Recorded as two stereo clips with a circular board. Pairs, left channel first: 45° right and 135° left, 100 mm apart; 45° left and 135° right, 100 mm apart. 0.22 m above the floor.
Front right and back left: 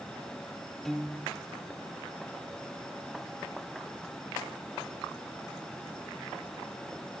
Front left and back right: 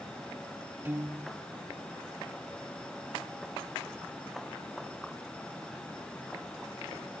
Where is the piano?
125° right, 0.6 m.